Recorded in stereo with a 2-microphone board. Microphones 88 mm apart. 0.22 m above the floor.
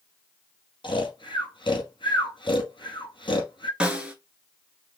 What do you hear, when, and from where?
0.8 s snoring: 70° left (ahead or behind), 1.7 m
3.8 s a snare drum: 10° right (ahead or behind), 1.3 m